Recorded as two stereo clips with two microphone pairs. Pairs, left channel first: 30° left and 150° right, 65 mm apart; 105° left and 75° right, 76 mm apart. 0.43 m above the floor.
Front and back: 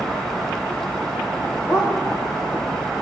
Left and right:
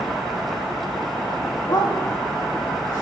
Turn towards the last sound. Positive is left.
turn(degrees=135)